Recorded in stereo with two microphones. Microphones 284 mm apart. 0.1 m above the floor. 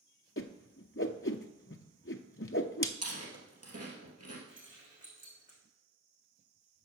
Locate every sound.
0.4 s a whoosh: 45° left (ahead or behind), 0.6 m
3.0 s chewing: 60° right (ahead or behind), 2.5 m
4.5 s keys jangling: 25° right (ahead or behind), 4.5 m